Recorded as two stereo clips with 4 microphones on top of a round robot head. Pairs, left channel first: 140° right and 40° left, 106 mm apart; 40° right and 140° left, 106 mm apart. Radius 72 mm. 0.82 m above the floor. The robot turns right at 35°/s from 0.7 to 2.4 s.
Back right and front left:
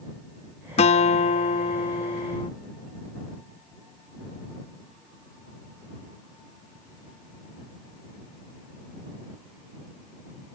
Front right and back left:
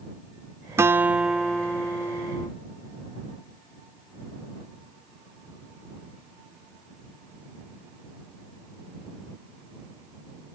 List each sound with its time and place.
0.8 s a guitar: 155° right; by 2.5 s 100° right